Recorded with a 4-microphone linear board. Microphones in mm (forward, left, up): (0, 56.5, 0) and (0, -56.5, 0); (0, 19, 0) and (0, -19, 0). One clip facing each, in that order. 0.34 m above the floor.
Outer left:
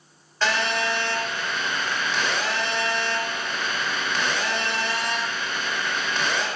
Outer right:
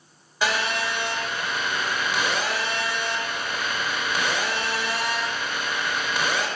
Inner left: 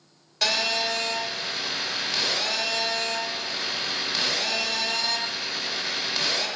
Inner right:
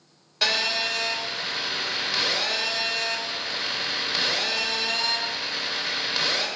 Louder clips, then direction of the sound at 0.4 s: Outer left 1 dB, even; 10° right (ahead or behind).